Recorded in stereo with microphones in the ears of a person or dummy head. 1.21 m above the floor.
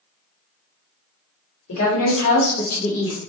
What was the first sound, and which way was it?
A woman speaking, 85° left.